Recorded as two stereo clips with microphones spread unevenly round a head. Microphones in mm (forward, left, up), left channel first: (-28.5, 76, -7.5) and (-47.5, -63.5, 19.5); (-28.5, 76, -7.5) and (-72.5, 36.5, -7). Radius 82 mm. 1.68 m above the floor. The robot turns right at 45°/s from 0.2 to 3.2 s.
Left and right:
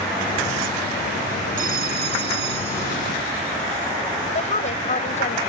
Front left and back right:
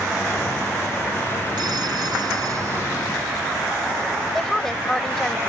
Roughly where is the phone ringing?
Behind right.